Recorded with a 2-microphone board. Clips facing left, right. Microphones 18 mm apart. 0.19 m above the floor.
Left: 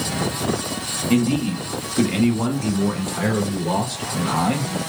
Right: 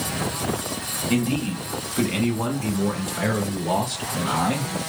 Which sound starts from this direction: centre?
A man speaking, at 1.1 s.